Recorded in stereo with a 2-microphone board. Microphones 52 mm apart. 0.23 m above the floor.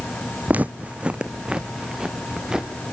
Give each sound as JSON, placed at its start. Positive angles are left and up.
{"t": 0.5, "sound": "footsteps", "side_deg": -30, "distance_m": 0.6}